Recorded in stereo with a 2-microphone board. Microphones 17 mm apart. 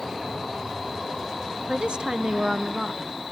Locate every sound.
1.7 s a woman speaking: 70° right (ahead or behind), 1.4 m; by 3.1 s 20° right (ahead or behind), 1.6 m